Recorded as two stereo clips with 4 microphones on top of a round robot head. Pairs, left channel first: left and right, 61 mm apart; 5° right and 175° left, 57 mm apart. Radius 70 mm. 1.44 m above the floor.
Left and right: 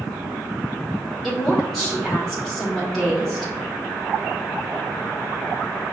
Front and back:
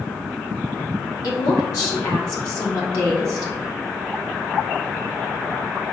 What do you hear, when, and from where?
1.2 s a woman speaking: 5° left, 1.1 m